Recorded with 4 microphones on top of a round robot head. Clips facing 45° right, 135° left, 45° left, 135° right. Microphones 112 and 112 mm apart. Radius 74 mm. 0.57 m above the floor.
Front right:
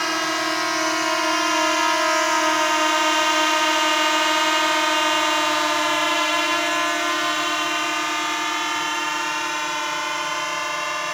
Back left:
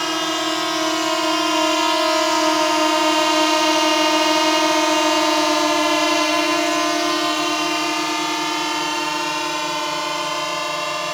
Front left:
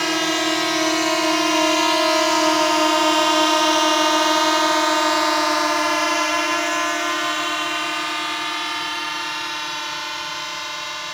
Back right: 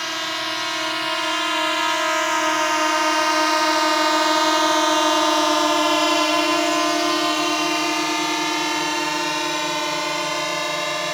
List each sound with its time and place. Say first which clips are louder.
0.0 s a drone: back left 2 dB, front left 7 dB; 60° left; by 11.1 s 165° right